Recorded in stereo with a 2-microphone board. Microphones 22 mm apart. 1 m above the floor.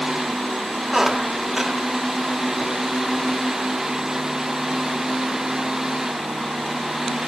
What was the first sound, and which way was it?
A squeak, 15° right (ahead or behind).